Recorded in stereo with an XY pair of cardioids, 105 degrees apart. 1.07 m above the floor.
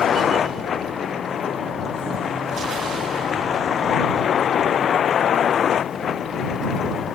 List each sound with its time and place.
0.0 s a vehicle: 55° left